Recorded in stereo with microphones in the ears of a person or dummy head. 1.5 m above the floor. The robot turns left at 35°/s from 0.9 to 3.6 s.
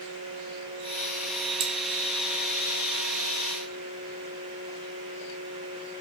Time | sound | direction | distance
1.6 | cutlery clinking | 40° right (ahead or behind) | 0.9 m